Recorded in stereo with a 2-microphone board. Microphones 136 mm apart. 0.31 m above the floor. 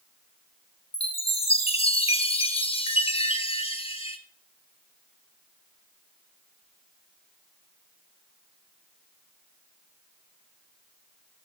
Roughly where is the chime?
Left.